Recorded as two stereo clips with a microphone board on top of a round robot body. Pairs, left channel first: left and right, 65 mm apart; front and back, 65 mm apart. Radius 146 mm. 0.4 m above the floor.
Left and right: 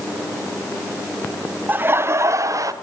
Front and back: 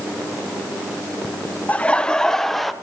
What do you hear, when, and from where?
1.7 s laughter: 50° right, 0.9 m; by 2.7 s 90° right, 1.3 m